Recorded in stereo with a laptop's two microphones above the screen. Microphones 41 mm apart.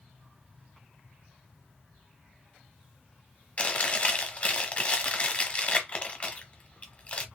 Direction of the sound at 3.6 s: 30° left (ahead or behind).